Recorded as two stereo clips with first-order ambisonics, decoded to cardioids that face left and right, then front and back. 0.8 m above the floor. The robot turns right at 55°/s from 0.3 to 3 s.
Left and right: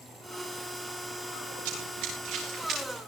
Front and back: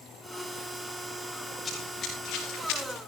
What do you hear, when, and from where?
1.6 s running footsteps: 80° right, 9 m; by 3.0 s 20° right, 9 m